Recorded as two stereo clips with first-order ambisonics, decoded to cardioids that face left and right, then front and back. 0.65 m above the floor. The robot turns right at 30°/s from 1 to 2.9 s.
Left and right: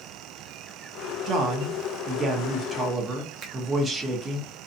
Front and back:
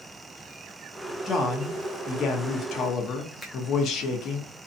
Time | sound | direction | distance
1.2 | a man speaking | 65° right | 0.7 m
3.4 | a finger snap | 85° right | 0.7 m